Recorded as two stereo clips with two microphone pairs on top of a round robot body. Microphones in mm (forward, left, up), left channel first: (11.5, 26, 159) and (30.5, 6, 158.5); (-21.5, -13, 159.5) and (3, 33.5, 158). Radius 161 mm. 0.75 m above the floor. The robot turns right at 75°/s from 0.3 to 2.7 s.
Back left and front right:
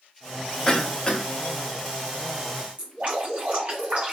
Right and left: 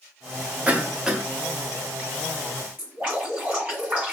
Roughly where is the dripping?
Ahead.